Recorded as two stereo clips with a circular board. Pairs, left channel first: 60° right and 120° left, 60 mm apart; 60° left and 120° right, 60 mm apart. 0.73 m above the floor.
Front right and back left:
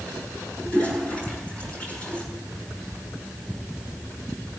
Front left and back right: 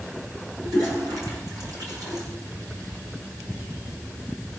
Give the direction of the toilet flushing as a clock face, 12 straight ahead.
4 o'clock.